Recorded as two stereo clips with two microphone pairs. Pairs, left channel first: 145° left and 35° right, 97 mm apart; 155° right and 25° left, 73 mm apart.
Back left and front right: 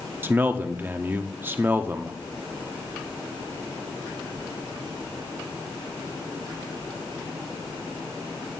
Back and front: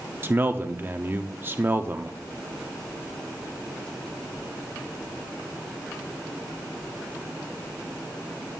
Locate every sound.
0.2 s a man speaking: 5° left, 0.7 m